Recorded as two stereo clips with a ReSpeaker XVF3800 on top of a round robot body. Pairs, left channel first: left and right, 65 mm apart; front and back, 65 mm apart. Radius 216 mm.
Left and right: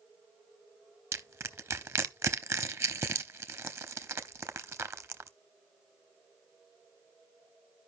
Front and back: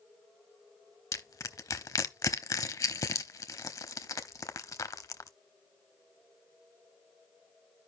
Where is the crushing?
40° right, 0.9 m.